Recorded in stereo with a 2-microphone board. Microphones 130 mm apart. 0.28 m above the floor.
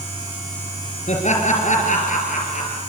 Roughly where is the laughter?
Left.